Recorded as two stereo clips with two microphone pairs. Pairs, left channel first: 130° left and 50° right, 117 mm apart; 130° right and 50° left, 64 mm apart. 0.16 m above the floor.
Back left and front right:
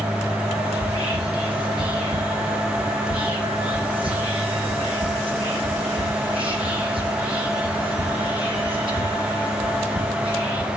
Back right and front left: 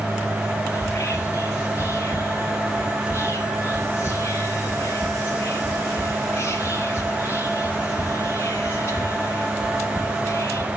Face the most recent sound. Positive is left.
turn(degrees=-85)